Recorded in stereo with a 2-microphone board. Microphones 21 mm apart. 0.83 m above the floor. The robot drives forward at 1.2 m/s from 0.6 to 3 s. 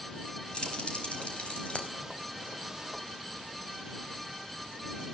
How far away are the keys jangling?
About 4.5 m.